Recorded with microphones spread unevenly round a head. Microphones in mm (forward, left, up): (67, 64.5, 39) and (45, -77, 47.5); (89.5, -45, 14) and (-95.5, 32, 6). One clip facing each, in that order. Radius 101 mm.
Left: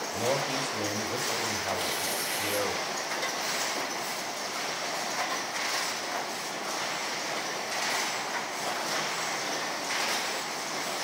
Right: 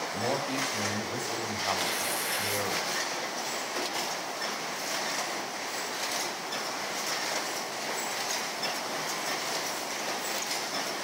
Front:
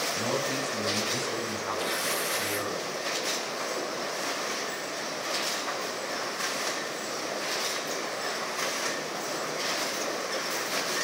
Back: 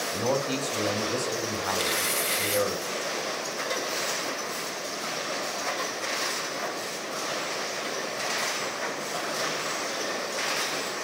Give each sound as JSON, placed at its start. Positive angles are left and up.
{"t": 0.1, "sound": "a man speaking", "azimuth_deg": 165, "distance_m": 7.0}
{"t": 1.8, "sound": "tearing paper", "azimuth_deg": -155, "distance_m": 2.5}